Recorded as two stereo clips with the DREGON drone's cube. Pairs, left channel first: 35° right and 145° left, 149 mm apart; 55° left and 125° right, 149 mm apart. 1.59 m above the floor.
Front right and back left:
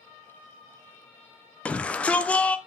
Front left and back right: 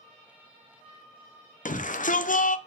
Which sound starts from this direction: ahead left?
A shout, at 1.6 s.